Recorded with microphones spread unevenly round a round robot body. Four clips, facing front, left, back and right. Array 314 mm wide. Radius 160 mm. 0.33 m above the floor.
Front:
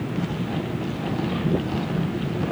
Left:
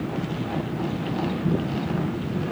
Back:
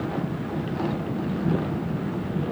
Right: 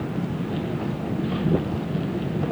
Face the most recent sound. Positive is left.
No sound to turn to.